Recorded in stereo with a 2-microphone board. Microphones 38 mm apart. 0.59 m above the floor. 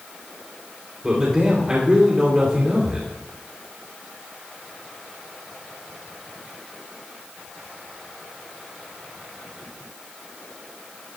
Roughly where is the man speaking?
Right.